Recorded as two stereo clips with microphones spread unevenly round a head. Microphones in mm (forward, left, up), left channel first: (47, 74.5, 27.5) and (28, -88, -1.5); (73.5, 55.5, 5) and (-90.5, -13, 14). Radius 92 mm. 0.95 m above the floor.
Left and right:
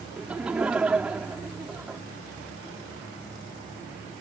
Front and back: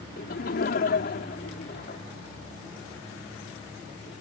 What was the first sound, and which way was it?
Laughter, 15° right.